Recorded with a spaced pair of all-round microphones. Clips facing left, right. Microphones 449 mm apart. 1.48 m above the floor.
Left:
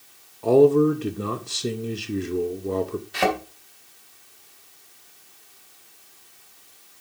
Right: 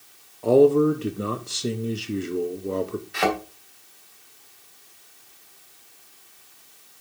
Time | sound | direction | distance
0.4 | a man speaking | centre (ahead or behind) | 0.7 m
3.1 | a thud | 50° left (ahead or behind) | 2.5 m